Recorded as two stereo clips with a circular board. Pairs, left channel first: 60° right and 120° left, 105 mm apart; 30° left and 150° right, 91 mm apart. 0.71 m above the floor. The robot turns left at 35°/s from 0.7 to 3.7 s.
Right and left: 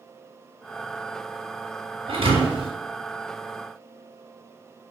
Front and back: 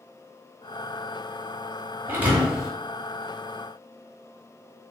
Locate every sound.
2.1 s a thud: 145° left, 0.8 m; by 2.7 s 125° left, 0.8 m